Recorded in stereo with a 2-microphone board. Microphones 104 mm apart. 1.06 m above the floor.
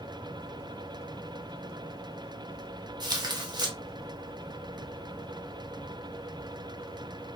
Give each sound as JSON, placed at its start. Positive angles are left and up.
{"t": 3.0, "sound": "tearing paper", "side_deg": -40, "distance_m": 0.7}